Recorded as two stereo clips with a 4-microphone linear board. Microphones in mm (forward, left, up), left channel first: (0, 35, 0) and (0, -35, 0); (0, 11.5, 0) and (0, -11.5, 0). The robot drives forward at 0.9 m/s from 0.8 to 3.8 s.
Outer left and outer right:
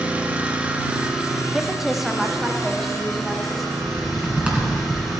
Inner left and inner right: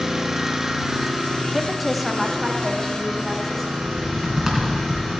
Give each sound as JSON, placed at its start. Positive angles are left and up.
{"t": 0.0, "sound": "an engine running", "side_deg": -20, "distance_m": 0.9}
{"t": 1.5, "sound": "a woman speaking", "side_deg": -5, "distance_m": 0.6}
{"t": 3.7, "sound": "typing on a keyboard", "side_deg": -20, "distance_m": 2.0}